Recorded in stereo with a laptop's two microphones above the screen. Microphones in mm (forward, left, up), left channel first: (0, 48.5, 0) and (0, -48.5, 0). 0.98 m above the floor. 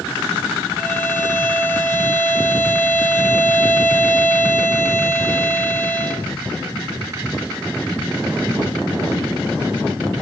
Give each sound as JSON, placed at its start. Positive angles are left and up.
{"t": 0.8, "sound": "a violin", "side_deg": 20, "distance_m": 1.3}